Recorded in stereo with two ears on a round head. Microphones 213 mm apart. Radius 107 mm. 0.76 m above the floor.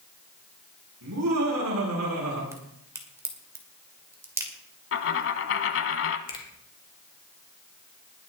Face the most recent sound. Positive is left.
turn(degrees=20)  # may be behind; listen again after turning